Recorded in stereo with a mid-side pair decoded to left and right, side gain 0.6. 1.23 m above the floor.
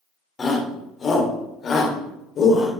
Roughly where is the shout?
Ahead left.